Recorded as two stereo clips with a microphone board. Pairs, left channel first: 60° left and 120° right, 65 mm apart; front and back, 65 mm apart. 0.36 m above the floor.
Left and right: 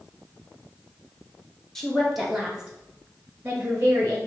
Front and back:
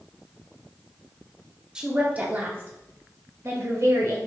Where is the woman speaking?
130° left, 0.9 m; by 4.2 s 175° right, 1.6 m.